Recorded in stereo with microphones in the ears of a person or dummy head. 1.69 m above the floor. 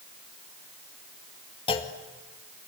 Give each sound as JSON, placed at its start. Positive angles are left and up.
{"t": 1.7, "sound": "a clunk", "side_deg": 25, "distance_m": 1.9}